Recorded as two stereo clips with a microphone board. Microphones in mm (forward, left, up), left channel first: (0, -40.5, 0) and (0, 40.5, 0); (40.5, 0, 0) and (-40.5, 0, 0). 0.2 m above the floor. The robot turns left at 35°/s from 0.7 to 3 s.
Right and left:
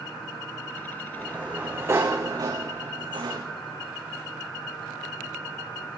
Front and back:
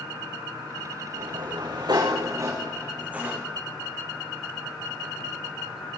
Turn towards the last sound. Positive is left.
turn(degrees=105)